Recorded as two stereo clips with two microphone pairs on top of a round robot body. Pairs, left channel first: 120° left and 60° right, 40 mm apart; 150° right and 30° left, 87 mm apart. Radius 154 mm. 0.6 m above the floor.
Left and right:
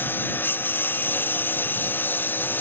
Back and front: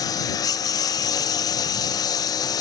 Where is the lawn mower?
160° left.